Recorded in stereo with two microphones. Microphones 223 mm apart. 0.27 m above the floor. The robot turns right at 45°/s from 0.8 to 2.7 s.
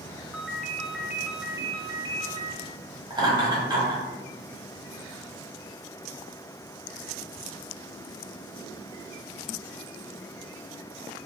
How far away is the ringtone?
About 0.6 m.